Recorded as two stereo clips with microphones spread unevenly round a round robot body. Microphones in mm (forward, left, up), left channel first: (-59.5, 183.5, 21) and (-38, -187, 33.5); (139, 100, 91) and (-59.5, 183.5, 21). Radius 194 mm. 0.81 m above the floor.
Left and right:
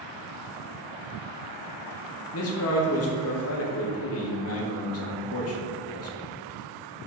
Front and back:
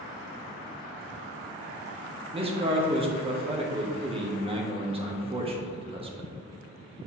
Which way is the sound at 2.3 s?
125° left.